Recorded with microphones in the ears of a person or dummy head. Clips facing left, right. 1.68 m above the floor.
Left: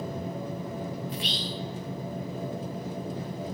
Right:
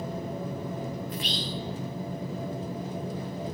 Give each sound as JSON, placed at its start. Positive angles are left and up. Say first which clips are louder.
{"t": 1.1, "sound": "whispering", "louder": "right 1 dB", "side_deg": -40, "distance_m": 0.5}